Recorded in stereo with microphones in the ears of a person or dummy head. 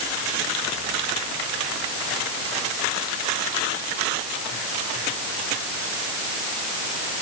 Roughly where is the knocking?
No knocking in this recording.